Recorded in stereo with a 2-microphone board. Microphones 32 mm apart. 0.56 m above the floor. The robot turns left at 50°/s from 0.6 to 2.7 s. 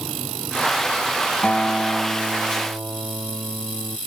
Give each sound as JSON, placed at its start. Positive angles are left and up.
{"t": 1.4, "sound": "a guitar", "azimuth_deg": 40}